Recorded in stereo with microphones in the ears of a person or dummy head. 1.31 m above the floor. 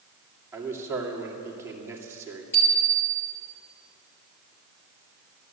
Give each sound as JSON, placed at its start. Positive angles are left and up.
{"t": 0.5, "sound": "a man speaking", "side_deg": -15, "distance_m": 2.5}
{"t": 2.5, "sound": "a bicycle bell", "side_deg": 15, "distance_m": 4.0}